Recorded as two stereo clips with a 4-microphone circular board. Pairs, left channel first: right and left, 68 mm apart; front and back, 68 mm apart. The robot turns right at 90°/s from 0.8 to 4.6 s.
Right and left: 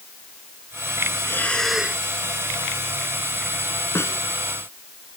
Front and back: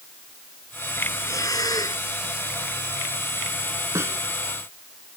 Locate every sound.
1.2 s breathing: 40° right; by 2.0 s 30° left
4.0 s a snare drum: 140° right; by 4.2 s 120° right